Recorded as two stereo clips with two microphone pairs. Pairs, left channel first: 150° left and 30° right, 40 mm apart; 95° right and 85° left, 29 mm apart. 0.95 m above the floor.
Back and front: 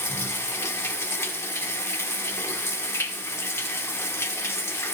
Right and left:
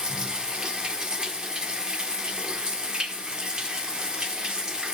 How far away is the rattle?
I don't hear a rattle.